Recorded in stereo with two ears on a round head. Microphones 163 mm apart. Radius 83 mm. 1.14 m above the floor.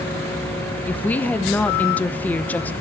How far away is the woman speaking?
About 0.9 m.